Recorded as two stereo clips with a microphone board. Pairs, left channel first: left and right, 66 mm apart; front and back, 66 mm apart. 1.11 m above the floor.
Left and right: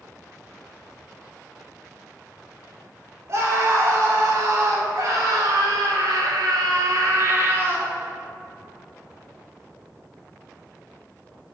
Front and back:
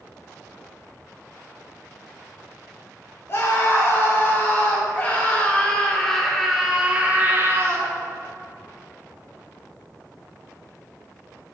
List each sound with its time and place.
3.3 s a scream: 55° right, 3.5 m; by 7.9 s 145° right, 1.4 m